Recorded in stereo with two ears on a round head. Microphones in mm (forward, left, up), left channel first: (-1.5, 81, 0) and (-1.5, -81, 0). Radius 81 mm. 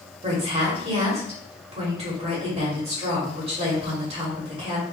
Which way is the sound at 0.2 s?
35° right (ahead or behind).